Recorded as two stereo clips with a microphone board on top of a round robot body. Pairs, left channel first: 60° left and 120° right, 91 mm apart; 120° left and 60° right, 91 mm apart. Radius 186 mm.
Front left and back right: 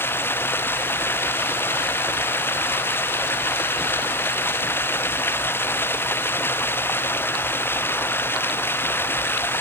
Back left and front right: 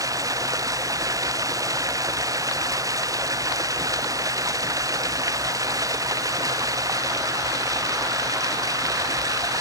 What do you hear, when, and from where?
0.0 s running water: 5° right